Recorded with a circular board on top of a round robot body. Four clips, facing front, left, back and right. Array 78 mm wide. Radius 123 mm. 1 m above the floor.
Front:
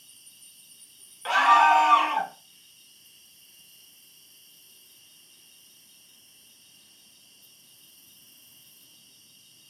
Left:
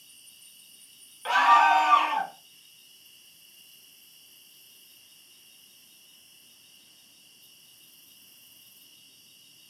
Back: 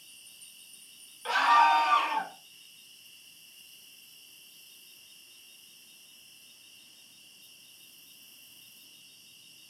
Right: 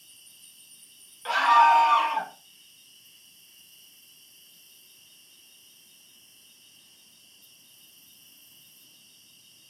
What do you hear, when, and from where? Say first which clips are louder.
0.0 s an insect: even, back 2 dB; 165° left, 2 m
1.2 s a scream: right 1 dB, front 4 dB; 35° left, 0.9 m